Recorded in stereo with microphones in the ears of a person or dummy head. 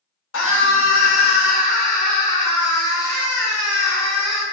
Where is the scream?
80° left, 1.2 m; by 4.4 s centre (ahead or behind), 1.9 m.